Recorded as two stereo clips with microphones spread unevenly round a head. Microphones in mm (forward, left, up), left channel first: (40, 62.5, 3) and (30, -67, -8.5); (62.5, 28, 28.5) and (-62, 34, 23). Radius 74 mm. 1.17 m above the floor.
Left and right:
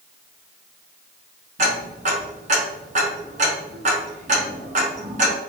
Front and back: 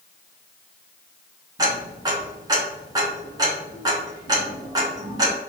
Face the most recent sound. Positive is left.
turn(degrees=-125)